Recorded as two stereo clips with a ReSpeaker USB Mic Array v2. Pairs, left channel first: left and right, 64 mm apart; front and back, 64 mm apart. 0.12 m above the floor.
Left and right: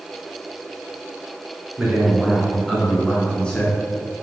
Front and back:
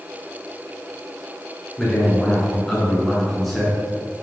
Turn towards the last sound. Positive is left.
turn(degrees=90)